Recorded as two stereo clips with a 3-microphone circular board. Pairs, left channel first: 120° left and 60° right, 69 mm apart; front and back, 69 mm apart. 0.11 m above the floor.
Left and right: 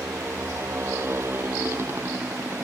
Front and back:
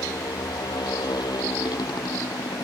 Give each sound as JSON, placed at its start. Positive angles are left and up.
{"t": 0.0, "sound": "a motorcycle", "azimuth_deg": -5}